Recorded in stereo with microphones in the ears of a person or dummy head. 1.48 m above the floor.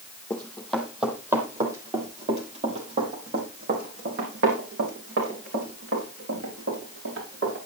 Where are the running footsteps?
15° left (ahead or behind), 3.5 m; by 7.6 s 70° right (ahead or behind), 9 m.